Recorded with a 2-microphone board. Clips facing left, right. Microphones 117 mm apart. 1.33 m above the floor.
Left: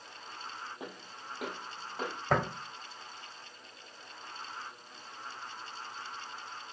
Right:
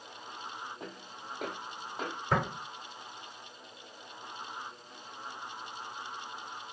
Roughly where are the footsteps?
Centre.